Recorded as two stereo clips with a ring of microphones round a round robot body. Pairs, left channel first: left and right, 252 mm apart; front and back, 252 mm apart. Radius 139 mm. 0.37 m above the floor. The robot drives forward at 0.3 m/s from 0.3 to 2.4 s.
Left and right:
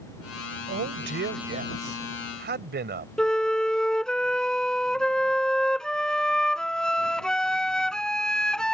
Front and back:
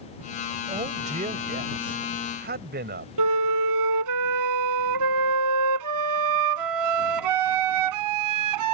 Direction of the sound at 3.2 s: Straight behind.